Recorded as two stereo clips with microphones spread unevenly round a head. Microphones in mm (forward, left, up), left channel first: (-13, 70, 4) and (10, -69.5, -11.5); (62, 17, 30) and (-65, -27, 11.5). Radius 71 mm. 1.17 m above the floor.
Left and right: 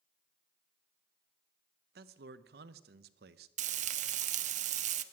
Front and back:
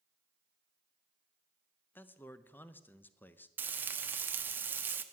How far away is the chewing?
I don't hear chewing.